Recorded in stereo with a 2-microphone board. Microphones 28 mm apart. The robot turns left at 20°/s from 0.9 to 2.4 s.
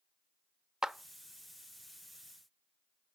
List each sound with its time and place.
0.8 s a clap: 25° right (ahead or behind), 0.6 m